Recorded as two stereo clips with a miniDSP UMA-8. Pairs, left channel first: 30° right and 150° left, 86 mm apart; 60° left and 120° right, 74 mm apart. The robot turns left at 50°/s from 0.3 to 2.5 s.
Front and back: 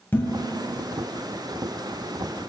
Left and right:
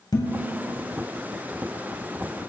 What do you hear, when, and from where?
0.1 s dishes clattering: 35° left, 3 m; by 0.9 s straight ahead, 3 m